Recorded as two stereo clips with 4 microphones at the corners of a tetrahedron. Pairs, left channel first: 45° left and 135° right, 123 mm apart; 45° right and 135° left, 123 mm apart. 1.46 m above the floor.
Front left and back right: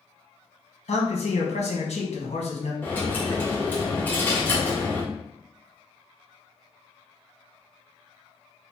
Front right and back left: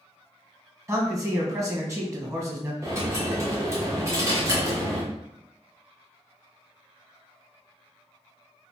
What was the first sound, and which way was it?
A man speaking, 70° left.